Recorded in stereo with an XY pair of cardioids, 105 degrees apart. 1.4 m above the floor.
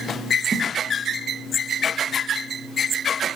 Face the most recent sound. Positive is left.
turn(degrees=-40)